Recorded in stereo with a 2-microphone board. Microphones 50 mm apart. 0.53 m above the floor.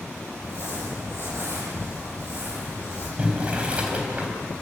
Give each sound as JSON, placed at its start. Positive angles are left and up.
{"t": 0.4, "sound": "crumpling", "side_deg": -55, "distance_m": 10.0}
{"t": 3.2, "sound": "boiling", "side_deg": -25, "distance_m": 4.0}